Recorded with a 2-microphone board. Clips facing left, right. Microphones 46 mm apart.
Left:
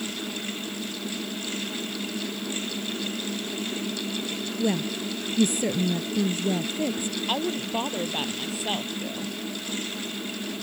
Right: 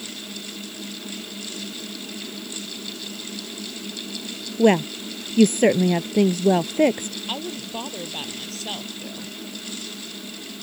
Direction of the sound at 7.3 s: 15° left (ahead or behind).